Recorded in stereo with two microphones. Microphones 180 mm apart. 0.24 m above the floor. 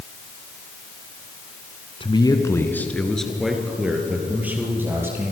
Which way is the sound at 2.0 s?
30° left (ahead or behind).